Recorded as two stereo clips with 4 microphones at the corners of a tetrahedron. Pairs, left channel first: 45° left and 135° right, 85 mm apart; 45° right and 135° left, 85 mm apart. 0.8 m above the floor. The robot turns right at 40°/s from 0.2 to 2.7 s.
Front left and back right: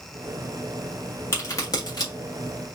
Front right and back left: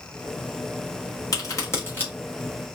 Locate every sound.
1.3 s a crack: 10° right, 1.8 m; by 2.1 s 25° left, 1.8 m